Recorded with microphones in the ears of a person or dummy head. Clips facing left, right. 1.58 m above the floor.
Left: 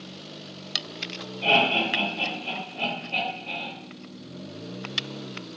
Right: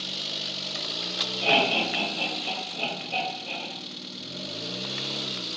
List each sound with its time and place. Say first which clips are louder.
1.4 s laughter: left 1 dB; 50° right (ahead or behind), 1.8 m